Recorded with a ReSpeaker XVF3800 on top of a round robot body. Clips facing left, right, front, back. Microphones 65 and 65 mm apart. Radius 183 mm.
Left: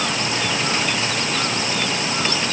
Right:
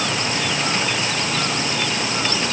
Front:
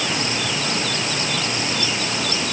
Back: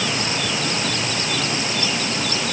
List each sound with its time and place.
Only background noise.